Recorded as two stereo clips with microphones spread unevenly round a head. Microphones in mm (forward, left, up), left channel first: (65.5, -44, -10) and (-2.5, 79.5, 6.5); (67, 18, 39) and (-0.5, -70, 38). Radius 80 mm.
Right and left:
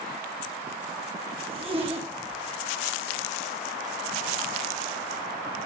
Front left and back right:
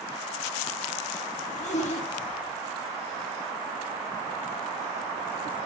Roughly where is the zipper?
Left.